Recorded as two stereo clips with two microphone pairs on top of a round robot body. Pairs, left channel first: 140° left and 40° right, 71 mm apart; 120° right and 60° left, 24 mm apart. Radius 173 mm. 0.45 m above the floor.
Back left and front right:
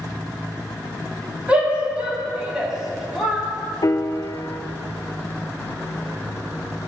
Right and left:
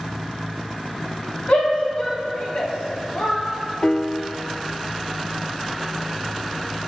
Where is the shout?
115° right, 4 m; by 3.4 s 130° right, 4 m.